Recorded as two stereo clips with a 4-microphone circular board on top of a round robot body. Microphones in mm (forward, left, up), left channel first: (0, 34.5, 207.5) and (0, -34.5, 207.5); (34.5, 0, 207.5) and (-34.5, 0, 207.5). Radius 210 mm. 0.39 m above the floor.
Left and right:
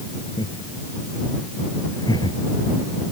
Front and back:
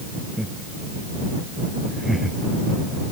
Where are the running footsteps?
No running footsteps in this recording.